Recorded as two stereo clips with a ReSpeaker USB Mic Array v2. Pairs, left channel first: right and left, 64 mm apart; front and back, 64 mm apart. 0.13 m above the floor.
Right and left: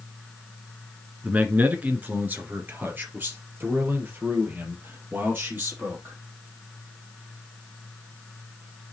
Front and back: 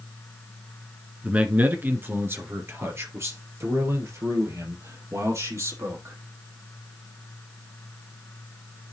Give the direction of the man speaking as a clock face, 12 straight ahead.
8 o'clock.